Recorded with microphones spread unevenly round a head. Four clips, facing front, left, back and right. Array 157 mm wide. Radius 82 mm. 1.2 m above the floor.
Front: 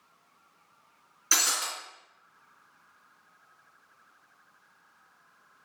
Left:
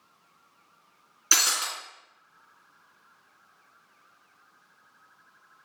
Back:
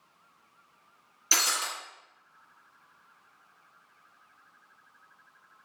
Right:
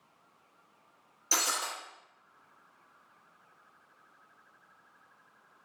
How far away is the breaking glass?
About 1.9 m.